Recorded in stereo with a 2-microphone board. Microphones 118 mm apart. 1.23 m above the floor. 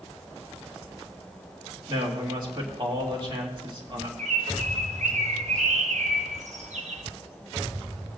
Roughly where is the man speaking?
Right.